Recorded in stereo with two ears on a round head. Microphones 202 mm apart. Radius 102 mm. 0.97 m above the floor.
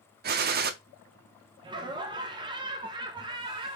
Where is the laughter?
20° right (ahead or behind), 0.7 m.